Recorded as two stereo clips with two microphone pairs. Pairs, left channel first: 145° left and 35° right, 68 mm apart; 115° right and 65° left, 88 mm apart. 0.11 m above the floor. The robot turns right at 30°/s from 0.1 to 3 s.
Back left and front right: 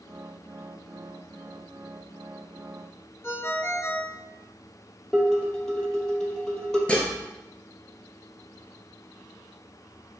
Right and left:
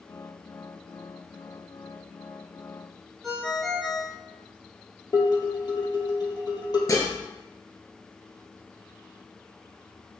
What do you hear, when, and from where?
3.2 s a ringtone: 160° left, 1.1 m
5.1 s dishes clattering: 140° right, 2.5 m
6.9 s dishes clattering: 150° right, 1.3 m